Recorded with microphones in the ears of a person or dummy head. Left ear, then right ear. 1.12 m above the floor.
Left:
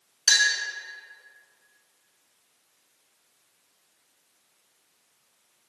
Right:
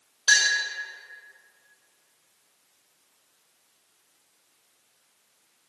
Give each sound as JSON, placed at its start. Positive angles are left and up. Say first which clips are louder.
{"t": 0.3, "sound": "a clink", "louder": "even", "side_deg": 70, "distance_m": 1.4}